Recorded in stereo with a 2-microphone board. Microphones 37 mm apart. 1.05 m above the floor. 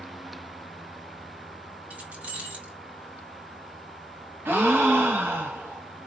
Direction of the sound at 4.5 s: 70° right (ahead or behind).